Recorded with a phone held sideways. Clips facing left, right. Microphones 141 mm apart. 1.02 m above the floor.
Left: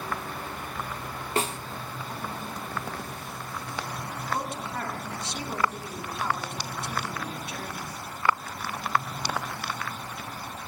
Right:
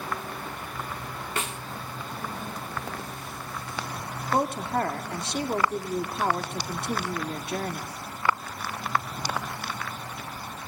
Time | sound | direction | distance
1.4 | a snare drum | 35° left (ahead or behind) | 0.6 m
4.3 | a woman speaking | 55° right (ahead or behind) | 2.0 m